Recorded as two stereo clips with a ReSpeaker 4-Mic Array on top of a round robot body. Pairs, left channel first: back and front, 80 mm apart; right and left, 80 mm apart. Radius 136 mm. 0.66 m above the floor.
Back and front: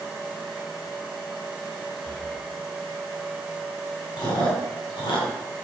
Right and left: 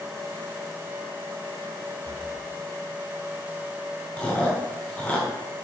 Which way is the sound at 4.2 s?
165° right.